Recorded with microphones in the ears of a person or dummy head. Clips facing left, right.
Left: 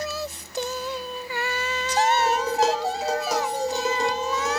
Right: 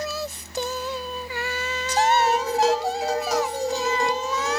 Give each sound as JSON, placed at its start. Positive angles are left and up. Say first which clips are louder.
{"t": 2.2, "sound": "dishes clattering", "louder": "right 1 dB", "side_deg": 80, "distance_m": 3.5}